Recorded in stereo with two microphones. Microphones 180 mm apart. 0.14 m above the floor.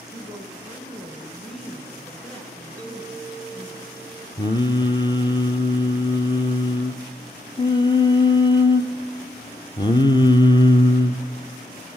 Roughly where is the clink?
Centre.